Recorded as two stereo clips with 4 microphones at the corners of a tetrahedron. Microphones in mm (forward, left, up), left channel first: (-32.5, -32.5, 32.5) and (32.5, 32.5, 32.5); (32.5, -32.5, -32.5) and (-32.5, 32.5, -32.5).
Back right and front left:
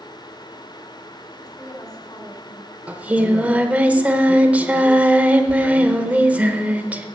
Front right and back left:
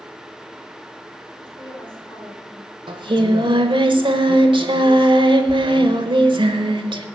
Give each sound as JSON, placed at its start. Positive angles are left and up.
{"t": 1.4, "sound": "a woman speaking", "azimuth_deg": -85, "distance_m": 4.0}
{"t": 2.9, "sound": "singing", "azimuth_deg": 120, "distance_m": 0.9}